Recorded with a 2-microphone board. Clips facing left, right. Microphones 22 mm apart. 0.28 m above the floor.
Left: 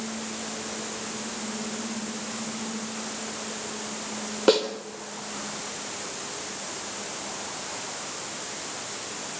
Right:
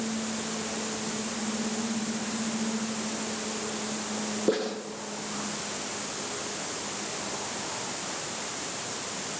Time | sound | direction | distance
4.5 | a snare drum | 85° left | 4.5 m